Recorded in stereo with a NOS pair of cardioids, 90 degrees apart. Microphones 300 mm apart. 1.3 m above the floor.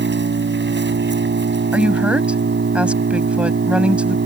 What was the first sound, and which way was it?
An engine running, 35° right.